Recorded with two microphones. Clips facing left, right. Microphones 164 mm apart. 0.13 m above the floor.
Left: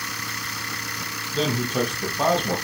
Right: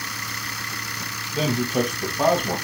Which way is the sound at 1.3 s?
10° right (ahead or behind).